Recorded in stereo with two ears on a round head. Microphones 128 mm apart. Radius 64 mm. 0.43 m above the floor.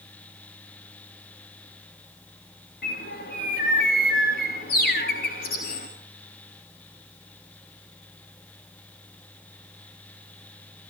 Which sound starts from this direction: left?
A bird, at 2.8 s.